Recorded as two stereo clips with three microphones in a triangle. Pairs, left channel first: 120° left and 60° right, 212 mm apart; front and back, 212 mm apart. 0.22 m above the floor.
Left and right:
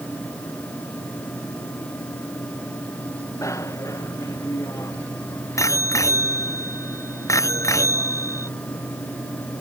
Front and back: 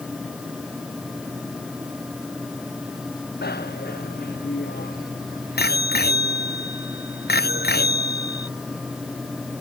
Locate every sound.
3.4 s a bicycle bell: 45° left